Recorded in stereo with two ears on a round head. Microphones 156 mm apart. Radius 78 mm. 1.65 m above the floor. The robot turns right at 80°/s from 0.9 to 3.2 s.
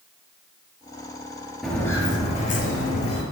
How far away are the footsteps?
About 2.0 m.